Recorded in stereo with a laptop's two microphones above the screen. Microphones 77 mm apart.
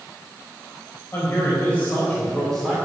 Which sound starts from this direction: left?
A man speaking, at 1.1 s.